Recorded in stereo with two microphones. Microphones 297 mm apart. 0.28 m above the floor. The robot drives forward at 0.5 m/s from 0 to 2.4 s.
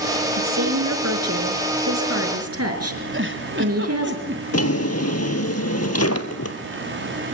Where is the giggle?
40° right (ahead or behind), 1.9 m.